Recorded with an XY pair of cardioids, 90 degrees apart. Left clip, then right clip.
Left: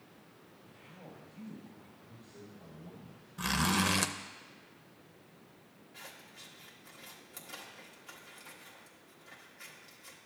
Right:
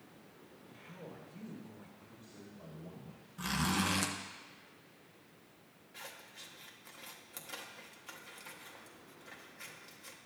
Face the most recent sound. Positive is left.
turn(degrees=-25)